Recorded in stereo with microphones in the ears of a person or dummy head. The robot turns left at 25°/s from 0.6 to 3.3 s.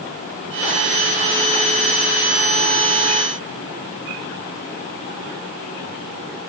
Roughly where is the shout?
No shout in this recording.